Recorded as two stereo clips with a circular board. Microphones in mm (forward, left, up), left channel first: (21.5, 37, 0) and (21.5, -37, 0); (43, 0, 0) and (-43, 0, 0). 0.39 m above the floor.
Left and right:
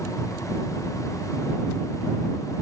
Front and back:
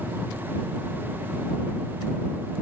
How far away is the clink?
I don't hear a clink.